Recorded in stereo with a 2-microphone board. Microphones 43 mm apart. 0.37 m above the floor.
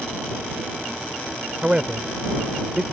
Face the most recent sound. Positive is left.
turn(degrees=-25)  # may be behind; listen again after turning